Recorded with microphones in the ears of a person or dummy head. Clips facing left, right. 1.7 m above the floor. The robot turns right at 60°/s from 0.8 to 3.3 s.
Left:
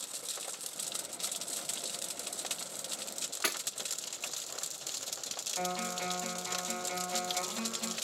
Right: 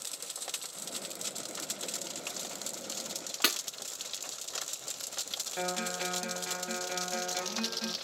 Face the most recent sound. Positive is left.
turn(degrees=-10)  # may be behind; listen again after turning